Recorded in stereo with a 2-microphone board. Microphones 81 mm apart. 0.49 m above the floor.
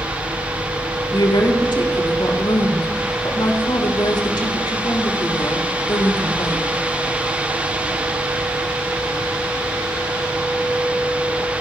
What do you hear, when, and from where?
1.1 s a woman speaking: 70° left (ahead or behind), 3.5 m